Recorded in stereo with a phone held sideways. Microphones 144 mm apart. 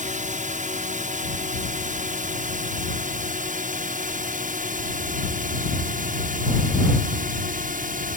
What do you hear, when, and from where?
0.0 s a drone: 60° right (ahead or behind); by 8.2 s 70° right (ahead or behind)